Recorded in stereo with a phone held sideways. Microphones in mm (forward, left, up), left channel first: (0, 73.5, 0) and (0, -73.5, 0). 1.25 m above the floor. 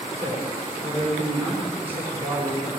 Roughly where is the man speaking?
Right.